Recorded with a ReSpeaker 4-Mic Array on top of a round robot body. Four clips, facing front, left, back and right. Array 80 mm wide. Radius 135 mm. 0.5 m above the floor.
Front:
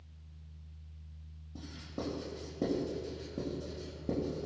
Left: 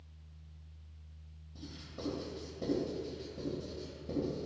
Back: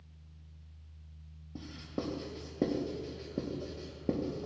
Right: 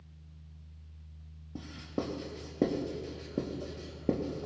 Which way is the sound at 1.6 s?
115° right.